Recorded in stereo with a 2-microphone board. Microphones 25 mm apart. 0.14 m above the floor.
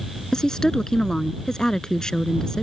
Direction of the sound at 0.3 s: 25° left (ahead or behind).